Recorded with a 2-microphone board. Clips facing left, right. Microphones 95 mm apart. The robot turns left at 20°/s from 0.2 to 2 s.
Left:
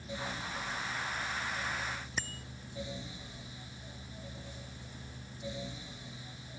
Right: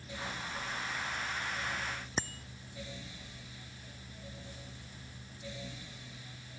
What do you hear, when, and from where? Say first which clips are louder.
2.2 s a bicycle bell: right 2 dB; 30° right (ahead or behind)